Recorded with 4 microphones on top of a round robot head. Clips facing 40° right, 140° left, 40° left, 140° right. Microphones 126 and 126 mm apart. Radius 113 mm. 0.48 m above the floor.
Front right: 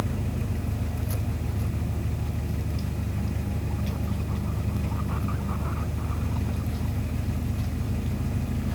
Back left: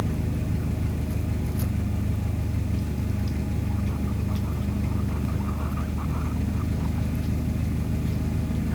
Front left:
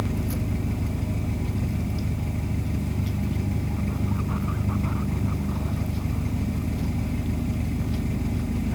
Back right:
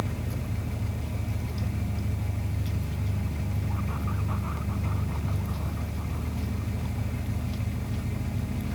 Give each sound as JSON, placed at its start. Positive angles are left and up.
{"t": 0.0, "sound": "an engine running", "azimuth_deg": 85, "distance_m": 5.0}